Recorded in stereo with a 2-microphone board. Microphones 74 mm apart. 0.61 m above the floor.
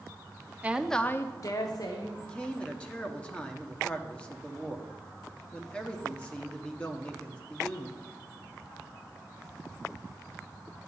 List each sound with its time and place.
0.6 s a woman speaking: 20° right (ahead or behind), 0.7 m; by 2.1 s 65° left (ahead or behind), 1.7 m
2.2 s a man speaking: 15° left (ahead or behind), 1.2 m